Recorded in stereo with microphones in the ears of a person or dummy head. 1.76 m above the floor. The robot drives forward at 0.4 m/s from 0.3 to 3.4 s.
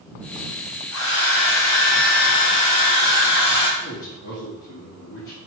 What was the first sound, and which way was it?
A hair dryer, 90° left.